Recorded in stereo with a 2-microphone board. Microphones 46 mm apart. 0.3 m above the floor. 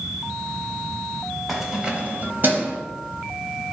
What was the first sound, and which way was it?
Keys jangling, 5° right (ahead or behind).